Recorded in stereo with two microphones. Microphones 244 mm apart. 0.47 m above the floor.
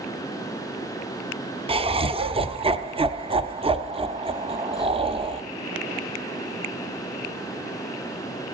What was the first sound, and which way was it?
Laughter, 25° right (ahead or behind).